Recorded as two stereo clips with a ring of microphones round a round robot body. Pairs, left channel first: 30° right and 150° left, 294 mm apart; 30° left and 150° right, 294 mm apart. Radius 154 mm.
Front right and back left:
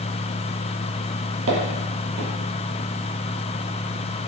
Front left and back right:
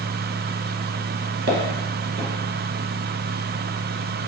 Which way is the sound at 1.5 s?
170° left.